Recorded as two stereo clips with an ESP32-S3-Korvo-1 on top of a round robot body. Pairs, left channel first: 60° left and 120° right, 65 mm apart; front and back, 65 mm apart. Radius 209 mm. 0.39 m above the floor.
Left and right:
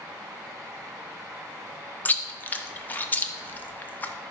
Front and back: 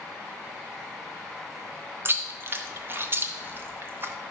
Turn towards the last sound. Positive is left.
turn(degrees=125)